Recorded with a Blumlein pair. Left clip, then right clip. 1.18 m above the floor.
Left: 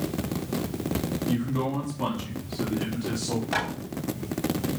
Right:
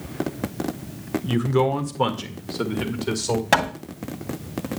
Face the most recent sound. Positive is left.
turn(degrees=-45)